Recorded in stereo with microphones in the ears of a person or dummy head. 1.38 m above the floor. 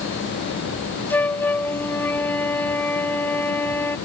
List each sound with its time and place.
1.1 s a flute: 10° left (ahead or behind)